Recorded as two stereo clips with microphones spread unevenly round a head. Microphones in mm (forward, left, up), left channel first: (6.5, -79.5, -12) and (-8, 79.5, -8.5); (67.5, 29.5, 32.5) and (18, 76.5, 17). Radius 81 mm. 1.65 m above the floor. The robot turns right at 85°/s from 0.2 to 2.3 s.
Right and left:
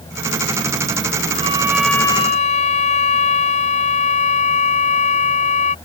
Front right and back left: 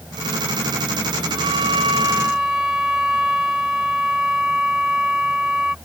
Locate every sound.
1.4 s a violin: 145° left; by 5.8 s 135° right